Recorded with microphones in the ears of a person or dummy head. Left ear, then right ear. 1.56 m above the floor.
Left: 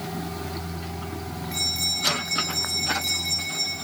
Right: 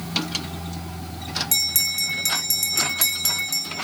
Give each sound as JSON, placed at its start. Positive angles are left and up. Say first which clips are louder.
{"t": 1.5, "sound": "a bell", "louder": "right 1 dB", "side_deg": -40, "distance_m": 2.0}